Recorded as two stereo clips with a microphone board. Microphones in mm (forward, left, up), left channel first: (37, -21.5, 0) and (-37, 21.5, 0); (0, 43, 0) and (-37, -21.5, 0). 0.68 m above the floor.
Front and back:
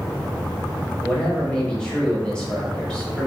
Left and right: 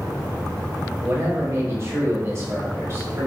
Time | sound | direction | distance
1.0 | a man speaking | 105° right | 0.8 m